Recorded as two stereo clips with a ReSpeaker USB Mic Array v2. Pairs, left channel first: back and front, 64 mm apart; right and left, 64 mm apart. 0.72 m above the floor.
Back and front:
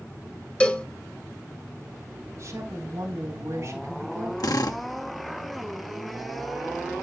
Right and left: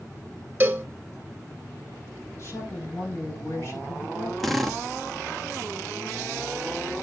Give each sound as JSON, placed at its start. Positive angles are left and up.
{"t": 0.6, "sound": "a cowbell", "azimuth_deg": 120, "distance_m": 1.0}
{"t": 2.4, "sound": "a woman speaking", "azimuth_deg": -50, "distance_m": 4.0}
{"t": 4.4, "sound": "a drill", "azimuth_deg": -175, "distance_m": 1.4}